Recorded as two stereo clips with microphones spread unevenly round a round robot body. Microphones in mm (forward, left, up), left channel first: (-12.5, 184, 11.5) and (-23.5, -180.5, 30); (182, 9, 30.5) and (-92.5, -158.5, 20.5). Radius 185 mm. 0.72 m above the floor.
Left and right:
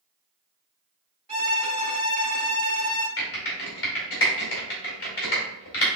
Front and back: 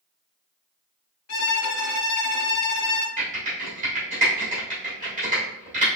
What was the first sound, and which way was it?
A violin, 10° right.